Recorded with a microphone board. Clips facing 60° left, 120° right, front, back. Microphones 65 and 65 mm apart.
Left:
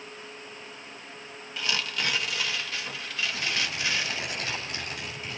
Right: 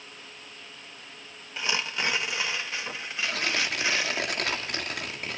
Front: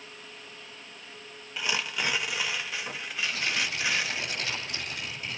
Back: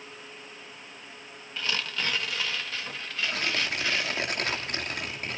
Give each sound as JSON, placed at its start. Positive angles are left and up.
{"t": 1.6, "sound": "tearing paper", "azimuth_deg": -70, "distance_m": 1.0}
{"t": 3.2, "sound": "tearing paper", "azimuth_deg": -140, "distance_m": 2.5}